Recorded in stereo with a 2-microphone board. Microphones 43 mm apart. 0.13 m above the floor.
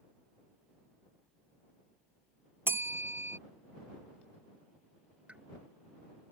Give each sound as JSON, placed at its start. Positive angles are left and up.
{"t": 2.7, "sound": "a bell", "side_deg": -65}
{"t": 5.3, "sound": "a pop", "side_deg": -30}